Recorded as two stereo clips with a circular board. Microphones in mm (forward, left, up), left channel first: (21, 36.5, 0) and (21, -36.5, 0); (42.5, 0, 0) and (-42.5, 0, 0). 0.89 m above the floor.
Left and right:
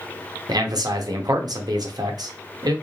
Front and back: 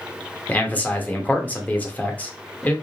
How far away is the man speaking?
About 1.1 m.